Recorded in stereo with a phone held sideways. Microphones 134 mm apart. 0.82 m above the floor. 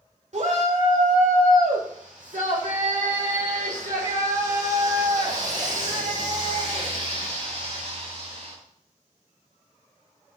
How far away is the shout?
About 3 m.